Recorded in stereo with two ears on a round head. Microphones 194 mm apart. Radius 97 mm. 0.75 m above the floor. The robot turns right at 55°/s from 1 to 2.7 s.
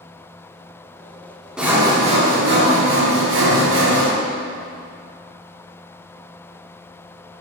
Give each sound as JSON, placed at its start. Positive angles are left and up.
{"t": 1.6, "sound": "sawing", "azimuth_deg": -175, "distance_m": 1.3}